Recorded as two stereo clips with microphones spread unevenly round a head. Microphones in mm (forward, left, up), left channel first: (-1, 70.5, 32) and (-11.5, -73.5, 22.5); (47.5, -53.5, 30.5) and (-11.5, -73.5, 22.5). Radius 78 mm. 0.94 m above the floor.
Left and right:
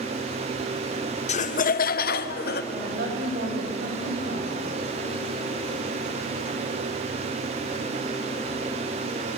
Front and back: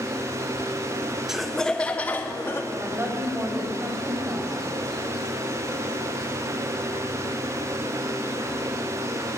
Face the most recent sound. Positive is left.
turn(degrees=-115)